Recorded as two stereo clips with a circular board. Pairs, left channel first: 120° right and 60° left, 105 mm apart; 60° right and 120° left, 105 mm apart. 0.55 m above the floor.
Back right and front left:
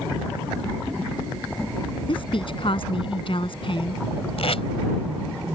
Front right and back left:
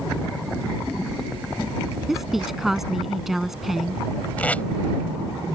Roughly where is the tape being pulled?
Behind right.